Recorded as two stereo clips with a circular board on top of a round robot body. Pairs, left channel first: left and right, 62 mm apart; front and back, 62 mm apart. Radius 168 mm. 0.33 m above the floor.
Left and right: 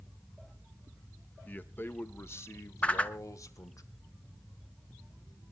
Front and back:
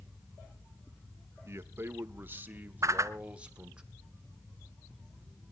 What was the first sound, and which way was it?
A man speaking, 145° left.